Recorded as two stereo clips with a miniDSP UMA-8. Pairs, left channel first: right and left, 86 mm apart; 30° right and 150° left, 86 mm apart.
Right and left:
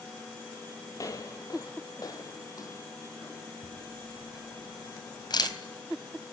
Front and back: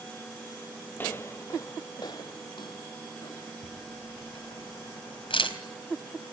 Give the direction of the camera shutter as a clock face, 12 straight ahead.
2 o'clock.